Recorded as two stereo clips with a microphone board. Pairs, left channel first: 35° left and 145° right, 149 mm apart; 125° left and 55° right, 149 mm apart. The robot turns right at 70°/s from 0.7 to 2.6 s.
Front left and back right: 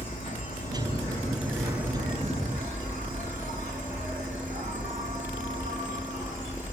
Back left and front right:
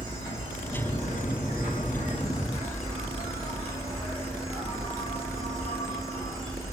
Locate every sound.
0.0 s an insect: 60° left, 3 m; by 6.7 s 165° right, 3 m